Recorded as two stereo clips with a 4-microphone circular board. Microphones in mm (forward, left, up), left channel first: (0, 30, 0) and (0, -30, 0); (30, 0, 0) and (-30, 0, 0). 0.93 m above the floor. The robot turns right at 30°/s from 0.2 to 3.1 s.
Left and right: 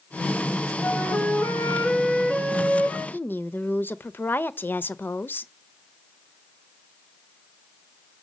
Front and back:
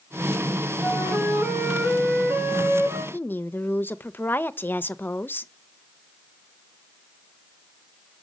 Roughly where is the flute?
Left.